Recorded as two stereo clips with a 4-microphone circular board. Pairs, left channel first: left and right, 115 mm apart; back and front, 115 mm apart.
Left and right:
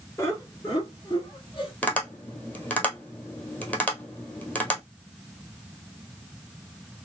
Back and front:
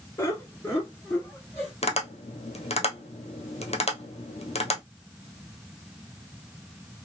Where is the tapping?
165° left, 1.2 m.